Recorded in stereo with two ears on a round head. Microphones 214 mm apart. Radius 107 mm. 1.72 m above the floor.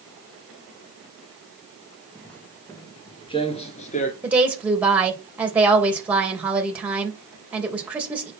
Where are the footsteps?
5° left (ahead or behind), 2.5 m; by 4.1 s 35° left (ahead or behind), 2.0 m.